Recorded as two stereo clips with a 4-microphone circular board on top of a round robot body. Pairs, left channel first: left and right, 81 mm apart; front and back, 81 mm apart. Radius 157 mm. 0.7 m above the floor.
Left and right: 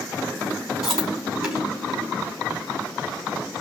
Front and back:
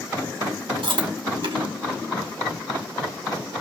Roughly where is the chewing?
Behind.